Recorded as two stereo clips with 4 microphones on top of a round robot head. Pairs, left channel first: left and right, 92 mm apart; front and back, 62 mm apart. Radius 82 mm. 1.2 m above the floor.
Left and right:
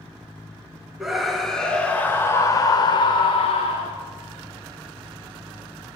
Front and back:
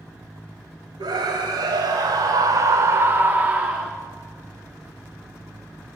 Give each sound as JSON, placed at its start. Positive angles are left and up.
{"t": 1.0, "sound": "a scream", "azimuth_deg": -175, "distance_m": 2.0}